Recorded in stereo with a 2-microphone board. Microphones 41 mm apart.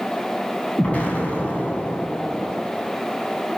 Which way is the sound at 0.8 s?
30° left (ahead or behind).